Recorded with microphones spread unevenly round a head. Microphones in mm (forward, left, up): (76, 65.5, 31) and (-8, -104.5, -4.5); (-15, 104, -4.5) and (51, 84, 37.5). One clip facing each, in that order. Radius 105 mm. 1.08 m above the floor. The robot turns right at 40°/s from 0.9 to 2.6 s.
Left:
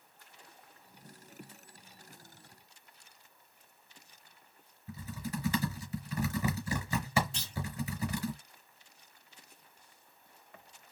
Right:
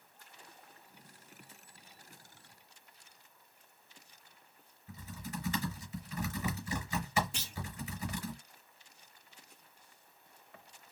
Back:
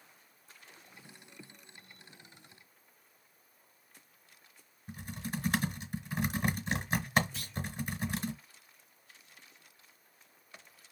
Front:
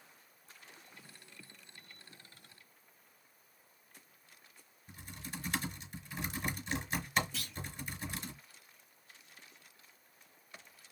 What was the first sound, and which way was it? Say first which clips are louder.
Typing on a keyboard: left 5 dB, back 8 dB; 120° left.